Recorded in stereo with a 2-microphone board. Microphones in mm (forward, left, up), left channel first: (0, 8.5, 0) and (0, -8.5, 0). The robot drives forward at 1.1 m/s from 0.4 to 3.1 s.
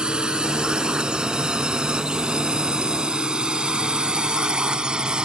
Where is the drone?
75° right (ahead or behind); by 5.2 s 70° right (ahead or behind).